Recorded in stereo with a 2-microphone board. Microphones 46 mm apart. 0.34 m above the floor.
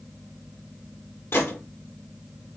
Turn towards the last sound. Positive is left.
turn(degrees=60)  # may be behind; listen again after turning